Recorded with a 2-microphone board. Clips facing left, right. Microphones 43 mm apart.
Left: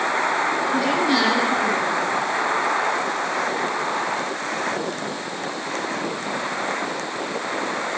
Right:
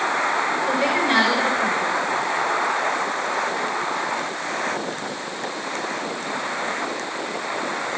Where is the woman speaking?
25° right (ahead or behind), 6.5 m.